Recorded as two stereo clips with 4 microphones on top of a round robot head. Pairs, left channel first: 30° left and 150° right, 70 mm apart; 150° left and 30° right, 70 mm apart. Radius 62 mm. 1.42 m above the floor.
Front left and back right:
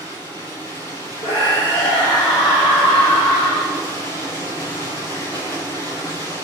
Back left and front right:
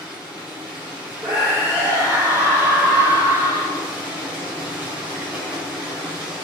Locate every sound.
0.0 s running water: 40° left, 7.5 m
1.2 s a scream: 30° left, 3.5 m